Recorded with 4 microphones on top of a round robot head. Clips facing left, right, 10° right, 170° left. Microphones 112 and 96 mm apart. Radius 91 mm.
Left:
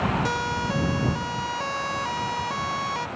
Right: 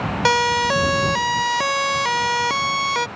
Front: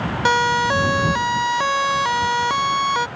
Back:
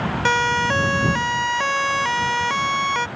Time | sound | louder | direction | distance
0.2 | a siren | right 9 dB, front 3 dB | 90° right | ?